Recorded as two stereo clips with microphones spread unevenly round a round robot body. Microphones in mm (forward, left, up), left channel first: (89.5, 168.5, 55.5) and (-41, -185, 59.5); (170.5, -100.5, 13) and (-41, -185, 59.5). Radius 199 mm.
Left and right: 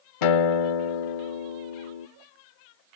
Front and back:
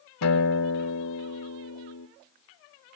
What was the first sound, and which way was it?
A guitar, 55° left.